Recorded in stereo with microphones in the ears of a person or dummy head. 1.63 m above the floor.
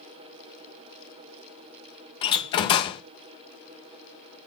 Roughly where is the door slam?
Left.